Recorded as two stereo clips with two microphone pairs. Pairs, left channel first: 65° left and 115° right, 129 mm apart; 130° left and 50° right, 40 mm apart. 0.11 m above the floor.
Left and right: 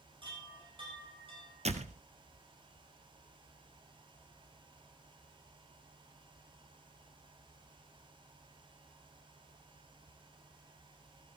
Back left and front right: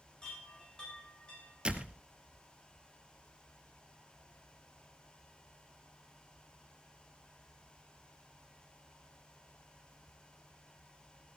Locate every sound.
0.2 s a chime: 165° right, 8 m
1.6 s a door slam: 110° right, 1.5 m